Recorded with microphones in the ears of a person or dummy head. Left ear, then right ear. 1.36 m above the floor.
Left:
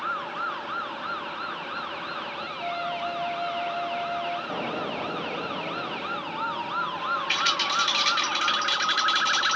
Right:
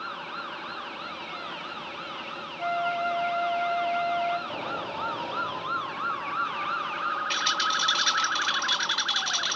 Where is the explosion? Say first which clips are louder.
Left 2 dB; 45° left (ahead or behind), 3 m.